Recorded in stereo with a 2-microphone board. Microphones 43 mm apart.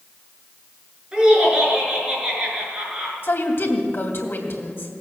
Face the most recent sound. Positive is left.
turn(degrees=60)  # may be behind; listen again after turning